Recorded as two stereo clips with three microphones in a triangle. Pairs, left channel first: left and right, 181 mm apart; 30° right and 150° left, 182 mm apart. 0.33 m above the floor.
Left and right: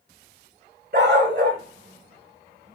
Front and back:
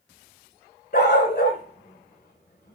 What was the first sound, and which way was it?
A dog barking, 65° right.